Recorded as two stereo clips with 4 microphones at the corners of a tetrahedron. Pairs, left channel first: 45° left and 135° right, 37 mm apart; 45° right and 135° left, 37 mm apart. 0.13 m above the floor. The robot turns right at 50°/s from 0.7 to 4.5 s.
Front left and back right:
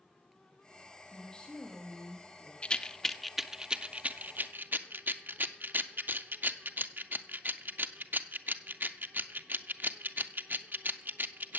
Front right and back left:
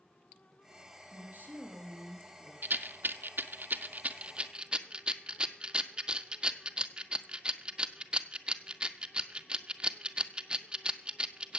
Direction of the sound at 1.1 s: 100° left.